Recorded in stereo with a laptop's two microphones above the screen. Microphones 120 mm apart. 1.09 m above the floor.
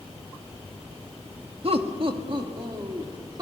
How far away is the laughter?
About 1.5 m.